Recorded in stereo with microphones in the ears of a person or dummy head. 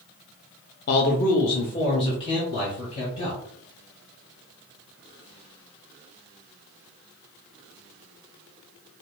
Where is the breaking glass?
I don't hear breaking glass.